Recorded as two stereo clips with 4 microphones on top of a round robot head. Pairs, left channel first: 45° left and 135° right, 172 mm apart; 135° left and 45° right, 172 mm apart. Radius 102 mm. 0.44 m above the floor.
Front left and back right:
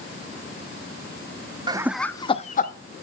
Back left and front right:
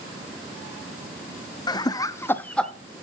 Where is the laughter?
175° right, 0.9 m; by 2.7 s 50° left, 1.3 m.